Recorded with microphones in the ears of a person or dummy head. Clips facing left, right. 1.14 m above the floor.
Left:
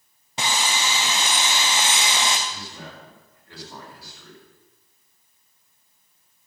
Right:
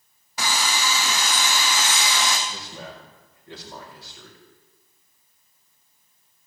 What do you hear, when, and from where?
0.4 s sawing: 20° left (ahead or behind), 2 m
2.5 s a man speaking: 20° right (ahead or behind), 4.5 m